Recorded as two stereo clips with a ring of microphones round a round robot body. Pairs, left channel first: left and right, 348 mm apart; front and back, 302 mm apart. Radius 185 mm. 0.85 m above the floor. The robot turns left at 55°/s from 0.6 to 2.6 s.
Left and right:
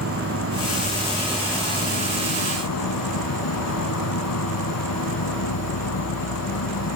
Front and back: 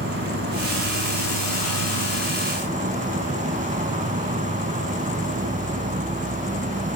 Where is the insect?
130° right; by 7.0 s 120° left.